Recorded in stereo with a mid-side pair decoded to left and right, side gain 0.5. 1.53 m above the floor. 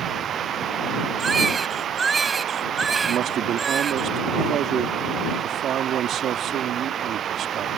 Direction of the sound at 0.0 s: 55° right.